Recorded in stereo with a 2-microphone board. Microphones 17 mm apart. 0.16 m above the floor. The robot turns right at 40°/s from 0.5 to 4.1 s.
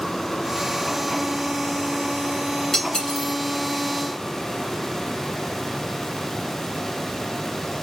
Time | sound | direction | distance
2.7 | cutlery clinking | 45° left (ahead or behind) | 0.9 m